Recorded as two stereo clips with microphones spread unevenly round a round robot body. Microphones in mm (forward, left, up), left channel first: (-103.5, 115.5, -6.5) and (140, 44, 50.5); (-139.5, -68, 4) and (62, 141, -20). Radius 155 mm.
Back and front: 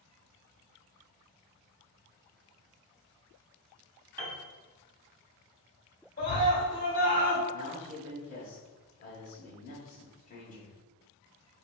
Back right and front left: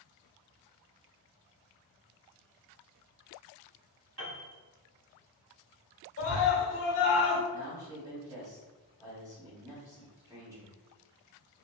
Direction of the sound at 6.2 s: 170° right.